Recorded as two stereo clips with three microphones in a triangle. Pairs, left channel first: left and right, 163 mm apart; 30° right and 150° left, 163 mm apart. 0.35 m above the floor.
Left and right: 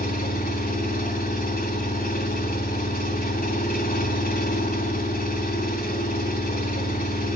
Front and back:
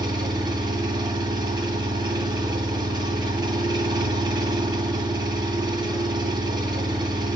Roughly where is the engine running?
Left.